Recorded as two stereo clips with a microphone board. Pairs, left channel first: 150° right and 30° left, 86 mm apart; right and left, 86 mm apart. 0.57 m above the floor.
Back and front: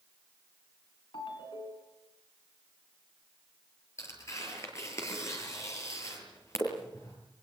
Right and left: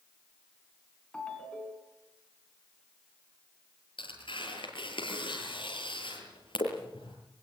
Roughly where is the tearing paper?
Right.